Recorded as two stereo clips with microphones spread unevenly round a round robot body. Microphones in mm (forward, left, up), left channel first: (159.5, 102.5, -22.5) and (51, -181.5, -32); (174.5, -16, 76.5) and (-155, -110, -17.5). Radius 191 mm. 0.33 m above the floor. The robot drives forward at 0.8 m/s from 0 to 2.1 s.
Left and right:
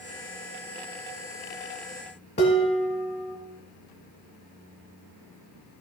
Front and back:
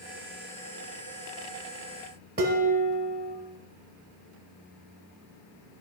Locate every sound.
2.4 s dishes clattering: 135° left, 1.5 m